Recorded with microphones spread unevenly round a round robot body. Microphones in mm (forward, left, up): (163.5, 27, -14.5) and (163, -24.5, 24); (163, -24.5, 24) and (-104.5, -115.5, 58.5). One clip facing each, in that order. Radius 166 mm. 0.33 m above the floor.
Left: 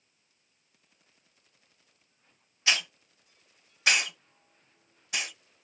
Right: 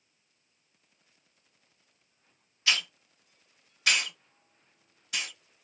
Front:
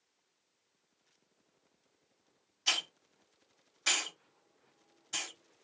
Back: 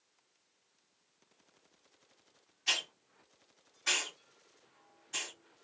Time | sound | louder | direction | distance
2.7 | a hiss | left 1 dB, even | 50° left | 0.8 m